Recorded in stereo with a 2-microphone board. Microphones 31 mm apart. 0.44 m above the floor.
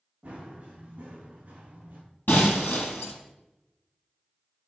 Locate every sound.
0.2 s running footsteps: 40° right (ahead or behind), 5.5 m; by 2.0 s 55° right (ahead or behind), 6.5 m
2.3 s breaking glass: 80° left, 4 m